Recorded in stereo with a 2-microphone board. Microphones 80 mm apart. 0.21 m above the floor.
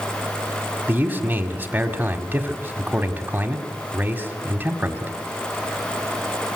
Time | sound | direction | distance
0.9 | a man speaking | 20° right (ahead or behind) | 1.7 m